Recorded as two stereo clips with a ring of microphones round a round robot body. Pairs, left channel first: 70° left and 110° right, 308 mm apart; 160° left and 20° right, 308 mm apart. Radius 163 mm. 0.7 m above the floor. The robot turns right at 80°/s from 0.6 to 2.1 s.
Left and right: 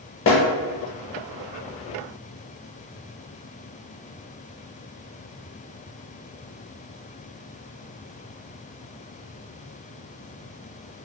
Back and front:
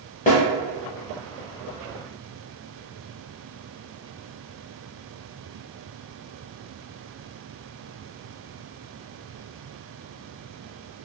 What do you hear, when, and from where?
0.3 s a snare drum: 100° left, 0.5 m